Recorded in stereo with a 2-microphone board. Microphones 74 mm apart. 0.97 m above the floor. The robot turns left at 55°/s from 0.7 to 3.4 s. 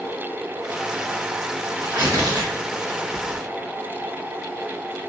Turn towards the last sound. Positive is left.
turn(degrees=-25)  # may be behind; listen again after turning